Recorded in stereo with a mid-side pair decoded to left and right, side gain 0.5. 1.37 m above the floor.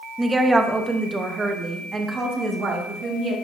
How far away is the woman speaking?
About 1.2 m.